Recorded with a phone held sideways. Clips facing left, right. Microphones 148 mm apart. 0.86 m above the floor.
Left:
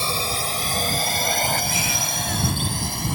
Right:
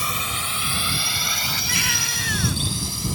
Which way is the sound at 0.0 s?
35° left (ahead or behind).